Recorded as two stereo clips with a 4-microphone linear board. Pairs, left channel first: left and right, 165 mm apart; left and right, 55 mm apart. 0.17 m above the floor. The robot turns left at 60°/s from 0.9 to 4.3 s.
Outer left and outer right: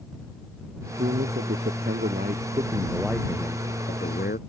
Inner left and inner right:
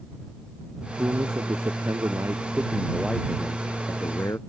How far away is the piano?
No piano in this recording.